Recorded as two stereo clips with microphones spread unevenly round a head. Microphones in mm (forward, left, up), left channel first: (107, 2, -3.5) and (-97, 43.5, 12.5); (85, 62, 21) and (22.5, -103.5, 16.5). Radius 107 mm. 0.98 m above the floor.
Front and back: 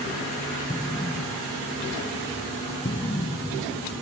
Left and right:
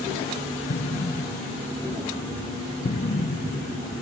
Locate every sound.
0.7 s an explosion: 45° left